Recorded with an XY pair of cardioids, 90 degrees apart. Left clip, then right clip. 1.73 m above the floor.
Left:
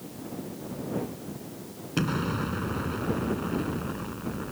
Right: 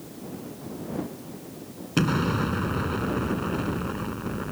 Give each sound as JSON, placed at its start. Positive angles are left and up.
{"t": 2.0, "sound": "an explosion", "azimuth_deg": -35}